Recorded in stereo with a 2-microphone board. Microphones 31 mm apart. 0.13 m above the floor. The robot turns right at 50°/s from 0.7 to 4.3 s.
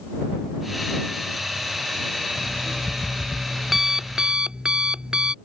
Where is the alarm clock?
125° left; by 5.3 s 140° right.